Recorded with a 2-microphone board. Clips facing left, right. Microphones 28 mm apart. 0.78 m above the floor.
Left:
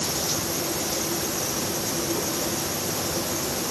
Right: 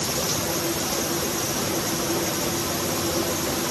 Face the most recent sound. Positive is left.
No sound to turn to.